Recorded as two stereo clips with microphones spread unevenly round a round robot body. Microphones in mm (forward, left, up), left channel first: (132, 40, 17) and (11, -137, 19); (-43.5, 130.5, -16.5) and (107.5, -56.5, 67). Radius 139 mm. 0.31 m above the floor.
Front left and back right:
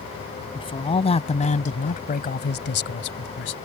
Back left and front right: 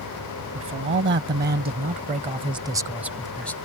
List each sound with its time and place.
0.6 s a man speaking: 10° right; by 3.6 s 60° left